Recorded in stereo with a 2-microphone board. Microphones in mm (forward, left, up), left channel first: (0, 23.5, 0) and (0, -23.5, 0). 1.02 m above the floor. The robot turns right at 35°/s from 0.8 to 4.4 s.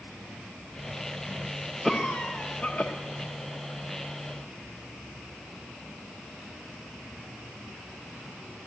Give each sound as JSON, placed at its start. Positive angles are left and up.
{"t": 1.8, "sound": "a cough", "azimuth_deg": 5, "distance_m": 0.9}